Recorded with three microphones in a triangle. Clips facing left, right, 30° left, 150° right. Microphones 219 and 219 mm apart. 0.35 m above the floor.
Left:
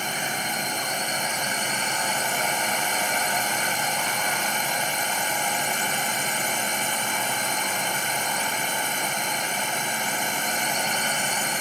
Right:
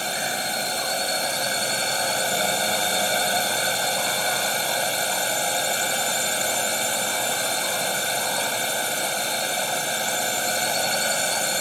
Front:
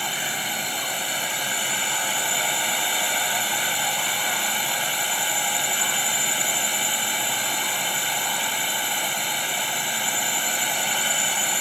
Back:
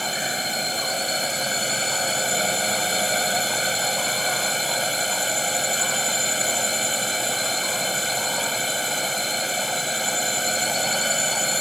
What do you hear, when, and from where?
0.0 s a drone: 125° right